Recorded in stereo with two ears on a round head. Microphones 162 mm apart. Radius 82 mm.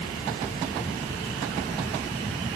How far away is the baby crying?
No baby crying in this recording.